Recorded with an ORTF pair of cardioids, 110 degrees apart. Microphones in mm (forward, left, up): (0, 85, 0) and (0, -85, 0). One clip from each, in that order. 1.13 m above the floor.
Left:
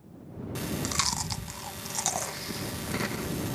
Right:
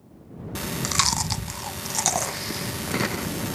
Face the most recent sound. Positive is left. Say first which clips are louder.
# right 6 dB
turn(degrees=-25)